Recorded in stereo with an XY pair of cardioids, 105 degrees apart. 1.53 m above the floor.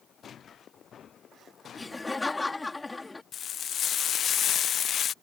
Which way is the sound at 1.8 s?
15° left.